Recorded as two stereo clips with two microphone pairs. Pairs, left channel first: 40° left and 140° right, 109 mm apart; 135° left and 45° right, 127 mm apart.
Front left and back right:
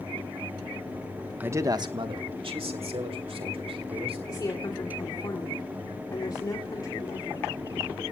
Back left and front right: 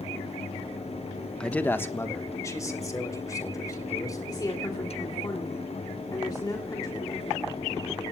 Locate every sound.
1.4 s a man speaking: 165° right, 0.9 m; by 4.2 s 160° right, 4.5 m
4.3 s a woman speaking: 85° left, 2 m